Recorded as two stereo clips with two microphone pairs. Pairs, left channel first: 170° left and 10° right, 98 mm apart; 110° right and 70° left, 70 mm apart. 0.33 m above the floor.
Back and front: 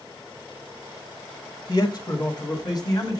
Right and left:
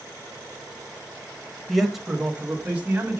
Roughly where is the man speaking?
Behind.